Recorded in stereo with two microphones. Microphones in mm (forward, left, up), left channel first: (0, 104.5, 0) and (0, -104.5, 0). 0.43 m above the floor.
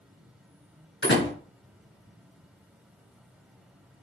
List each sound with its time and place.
0.0 s an insect: 5° right (ahead or behind), 1.2 m
1.0 s a door slam: 65° left (ahead or behind), 4.5 m